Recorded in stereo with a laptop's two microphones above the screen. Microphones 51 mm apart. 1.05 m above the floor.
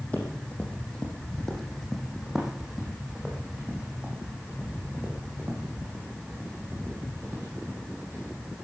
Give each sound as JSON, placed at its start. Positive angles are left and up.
{"t": 0.1, "sound": "running footsteps", "side_deg": 25, "distance_m": 3.0}